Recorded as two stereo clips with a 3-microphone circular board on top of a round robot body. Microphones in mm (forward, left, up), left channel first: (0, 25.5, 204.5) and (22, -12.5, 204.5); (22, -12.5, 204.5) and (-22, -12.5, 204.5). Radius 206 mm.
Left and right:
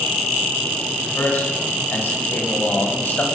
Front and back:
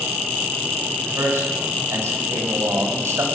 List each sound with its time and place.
1.0 s a man speaking: 165° left, 7.5 m